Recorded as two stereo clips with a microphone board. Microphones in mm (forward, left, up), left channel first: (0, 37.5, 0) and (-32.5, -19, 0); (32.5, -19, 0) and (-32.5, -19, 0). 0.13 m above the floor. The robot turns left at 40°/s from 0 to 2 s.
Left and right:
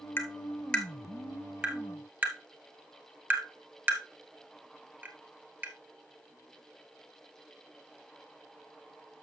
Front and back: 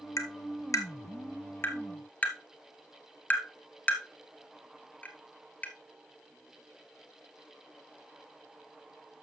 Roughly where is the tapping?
Ahead.